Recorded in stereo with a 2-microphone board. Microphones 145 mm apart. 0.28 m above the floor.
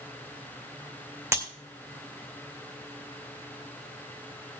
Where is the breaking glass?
20° right (ahead or behind), 2 m.